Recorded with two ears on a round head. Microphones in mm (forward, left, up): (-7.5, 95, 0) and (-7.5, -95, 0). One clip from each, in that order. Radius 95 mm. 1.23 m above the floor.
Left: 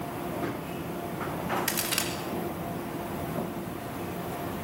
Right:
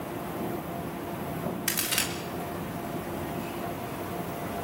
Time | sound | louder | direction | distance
1.7 | a crack | right 1 dB | 5° right (ahead or behind) | 2.5 m